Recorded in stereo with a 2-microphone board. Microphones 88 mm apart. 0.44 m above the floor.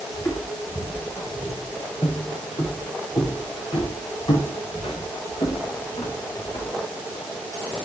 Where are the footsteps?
35° left (ahead or behind), 6.5 m; by 6.7 s 80° left, 8 m.